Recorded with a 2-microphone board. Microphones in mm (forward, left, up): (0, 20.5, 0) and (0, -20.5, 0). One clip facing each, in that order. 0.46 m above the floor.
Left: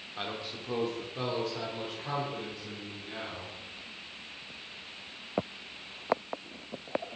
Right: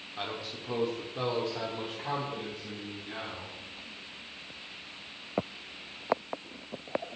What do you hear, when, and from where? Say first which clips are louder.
0.2 s a man speaking: even; 5° left (ahead or behind), 1.3 m; by 3.5 s 15° right (ahead or behind), 3 m